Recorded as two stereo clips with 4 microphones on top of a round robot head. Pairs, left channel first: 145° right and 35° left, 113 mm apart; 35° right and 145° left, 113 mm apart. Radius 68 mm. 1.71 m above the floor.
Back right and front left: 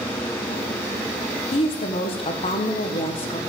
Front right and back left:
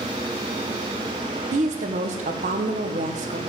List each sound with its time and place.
1.5 s a woman speaking: 170° left, 1.7 m